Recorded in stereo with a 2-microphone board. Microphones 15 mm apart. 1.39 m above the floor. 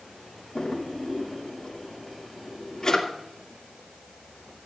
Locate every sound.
0.6 s a drawer: 40° left (ahead or behind), 2 m